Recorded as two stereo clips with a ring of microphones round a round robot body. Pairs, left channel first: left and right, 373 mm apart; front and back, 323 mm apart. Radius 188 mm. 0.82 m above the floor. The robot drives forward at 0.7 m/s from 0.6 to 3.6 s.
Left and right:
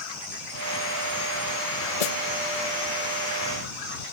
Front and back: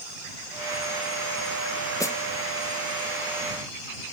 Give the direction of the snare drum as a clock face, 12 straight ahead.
9 o'clock.